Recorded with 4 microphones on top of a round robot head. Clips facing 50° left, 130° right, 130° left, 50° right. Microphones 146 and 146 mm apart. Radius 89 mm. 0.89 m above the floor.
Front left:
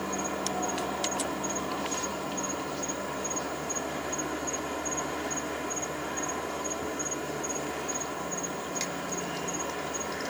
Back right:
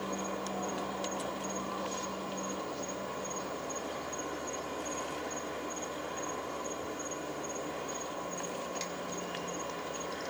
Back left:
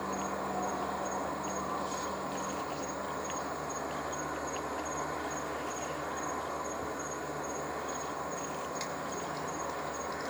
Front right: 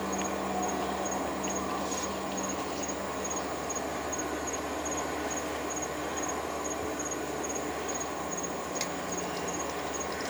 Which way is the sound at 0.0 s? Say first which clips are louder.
Front left 4 dB, front right 3 dB; 20° left.